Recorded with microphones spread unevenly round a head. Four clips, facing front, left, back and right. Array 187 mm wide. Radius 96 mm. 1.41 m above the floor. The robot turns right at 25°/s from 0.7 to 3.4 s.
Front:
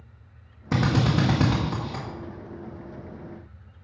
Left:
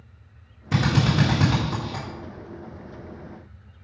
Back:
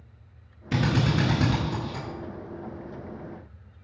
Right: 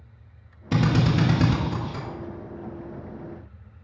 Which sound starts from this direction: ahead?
A drill, at 0.7 s.